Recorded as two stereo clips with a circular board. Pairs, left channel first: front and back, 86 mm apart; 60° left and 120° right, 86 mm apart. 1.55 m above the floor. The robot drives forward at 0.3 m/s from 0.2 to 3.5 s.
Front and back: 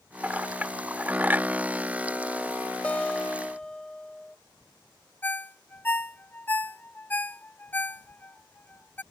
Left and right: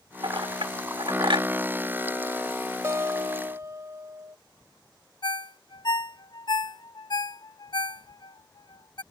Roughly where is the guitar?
Right.